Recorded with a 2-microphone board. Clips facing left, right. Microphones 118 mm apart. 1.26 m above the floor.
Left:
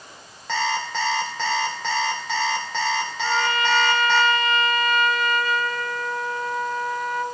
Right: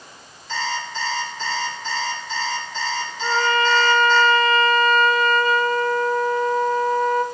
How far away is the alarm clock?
About 2 m.